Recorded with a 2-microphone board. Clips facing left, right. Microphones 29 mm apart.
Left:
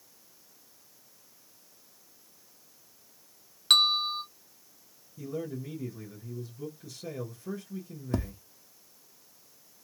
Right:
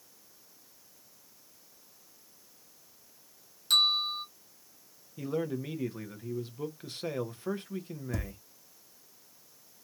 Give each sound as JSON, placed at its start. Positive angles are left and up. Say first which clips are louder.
{"t": 3.7, "sound": "a bell", "louder": "left 3 dB", "side_deg": 50, "distance_m": 1.1}
{"t": 5.2, "sound": "a man speaking", "louder": "right 3 dB", "side_deg": -45, "distance_m": 0.8}
{"t": 8.1, "sound": "tapping", "louder": "left 7 dB", "side_deg": 40, "distance_m": 0.5}